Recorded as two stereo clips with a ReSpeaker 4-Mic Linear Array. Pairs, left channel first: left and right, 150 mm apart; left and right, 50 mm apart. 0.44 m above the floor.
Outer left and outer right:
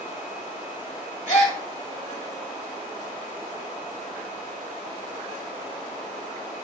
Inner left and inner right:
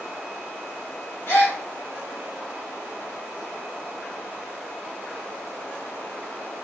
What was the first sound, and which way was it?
A gasp, 50° left (ahead or behind).